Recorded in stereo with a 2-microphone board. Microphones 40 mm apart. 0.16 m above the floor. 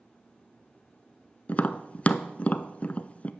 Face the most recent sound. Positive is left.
turn(degrees=35)  # may be behind; listen again after turning